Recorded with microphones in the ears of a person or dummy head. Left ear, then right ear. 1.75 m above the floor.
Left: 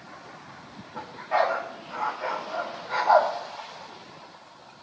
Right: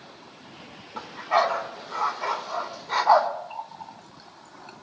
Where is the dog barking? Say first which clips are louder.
Right 2 dB; 25° right (ahead or behind), 2.5 m.